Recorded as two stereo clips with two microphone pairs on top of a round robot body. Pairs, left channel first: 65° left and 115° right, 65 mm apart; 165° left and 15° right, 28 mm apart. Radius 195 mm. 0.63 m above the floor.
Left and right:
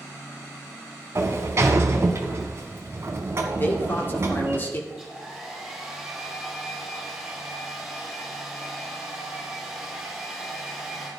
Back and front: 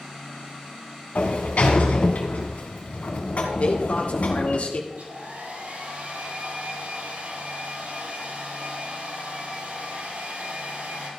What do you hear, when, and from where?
1.1 s a sliding door: 165° right, 1.4 m
3.6 s a man speaking: 125° left, 2.0 m
4.9 s a hair dryer: 30° right, 7.5 m